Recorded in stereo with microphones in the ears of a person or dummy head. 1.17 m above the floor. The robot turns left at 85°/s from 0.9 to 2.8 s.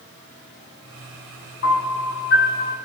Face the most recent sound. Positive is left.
turn(degrees=20)